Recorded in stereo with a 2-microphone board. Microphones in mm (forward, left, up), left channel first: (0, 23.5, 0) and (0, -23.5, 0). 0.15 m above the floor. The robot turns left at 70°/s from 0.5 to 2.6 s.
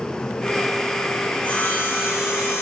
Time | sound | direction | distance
1.3 | sawing | 160° left | 10 m